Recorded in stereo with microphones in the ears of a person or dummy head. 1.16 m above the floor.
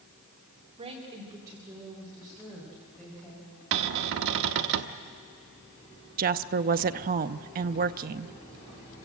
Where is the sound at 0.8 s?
30° right (ahead or behind), 3 m; by 3.5 s 5° left (ahead or behind), 6.5 m.